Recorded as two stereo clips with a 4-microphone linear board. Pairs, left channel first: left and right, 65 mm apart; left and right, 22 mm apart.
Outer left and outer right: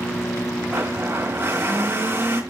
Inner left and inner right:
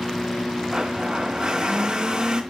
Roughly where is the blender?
Right.